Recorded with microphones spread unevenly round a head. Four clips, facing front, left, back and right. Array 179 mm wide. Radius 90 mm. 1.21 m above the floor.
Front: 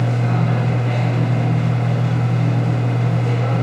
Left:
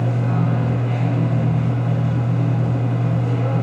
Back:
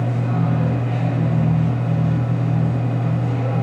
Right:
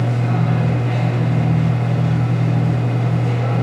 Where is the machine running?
30° right, 0.8 m.